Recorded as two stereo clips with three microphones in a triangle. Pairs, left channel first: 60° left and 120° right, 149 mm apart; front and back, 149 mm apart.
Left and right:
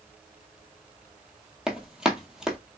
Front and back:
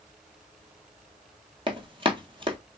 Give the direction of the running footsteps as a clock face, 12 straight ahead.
7 o'clock.